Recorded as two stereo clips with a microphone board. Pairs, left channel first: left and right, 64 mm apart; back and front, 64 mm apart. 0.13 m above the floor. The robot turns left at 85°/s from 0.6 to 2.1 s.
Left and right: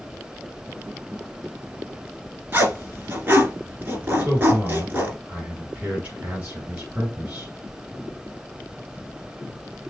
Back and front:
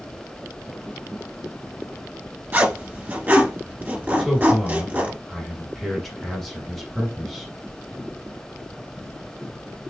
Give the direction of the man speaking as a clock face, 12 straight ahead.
3 o'clock.